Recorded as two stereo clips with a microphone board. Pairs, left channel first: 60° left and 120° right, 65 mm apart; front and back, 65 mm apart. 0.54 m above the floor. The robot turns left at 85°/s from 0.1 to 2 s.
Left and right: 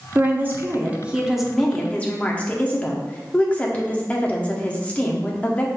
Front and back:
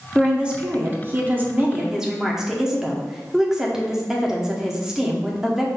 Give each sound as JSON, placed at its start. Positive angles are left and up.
{"t": 0.1, "sound": "a woman speaking", "azimuth_deg": -100, "distance_m": 0.8}